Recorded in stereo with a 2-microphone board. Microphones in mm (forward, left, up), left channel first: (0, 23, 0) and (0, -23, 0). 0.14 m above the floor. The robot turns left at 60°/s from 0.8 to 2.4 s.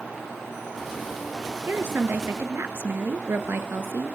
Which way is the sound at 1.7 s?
50° right.